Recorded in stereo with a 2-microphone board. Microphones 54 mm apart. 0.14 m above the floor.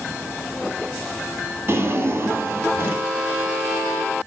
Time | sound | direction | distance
1.7 | a drawer | 45° right (ahead or behind) | 1.6 m